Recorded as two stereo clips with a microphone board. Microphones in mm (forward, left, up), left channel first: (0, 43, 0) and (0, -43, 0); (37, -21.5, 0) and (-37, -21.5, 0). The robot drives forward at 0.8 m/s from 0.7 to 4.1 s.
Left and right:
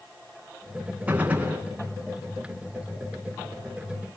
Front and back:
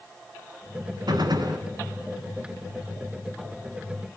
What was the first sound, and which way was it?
A gunshot, 165° right.